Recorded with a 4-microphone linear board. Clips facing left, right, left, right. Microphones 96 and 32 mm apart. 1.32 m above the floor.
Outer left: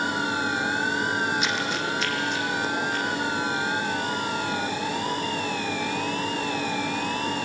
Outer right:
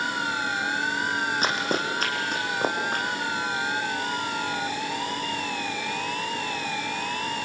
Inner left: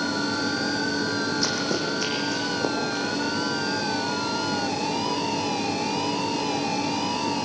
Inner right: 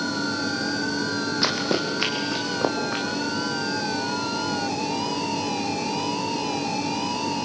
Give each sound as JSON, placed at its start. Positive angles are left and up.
{"t": 1.4, "sound": "running footsteps", "side_deg": -40, "distance_m": 2.5}